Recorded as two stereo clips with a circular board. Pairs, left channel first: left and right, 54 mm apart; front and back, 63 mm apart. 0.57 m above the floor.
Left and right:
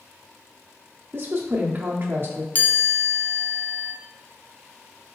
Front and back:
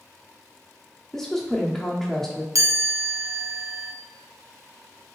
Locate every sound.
1.1 s a woman speaking: 80° right, 0.9 m
2.5 s a chime: 145° left, 0.6 m